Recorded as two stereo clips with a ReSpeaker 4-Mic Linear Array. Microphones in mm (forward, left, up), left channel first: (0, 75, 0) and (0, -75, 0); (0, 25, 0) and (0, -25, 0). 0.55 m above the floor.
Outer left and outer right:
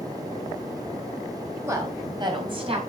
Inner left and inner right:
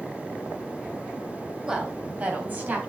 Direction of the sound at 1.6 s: 20° right (ahead or behind).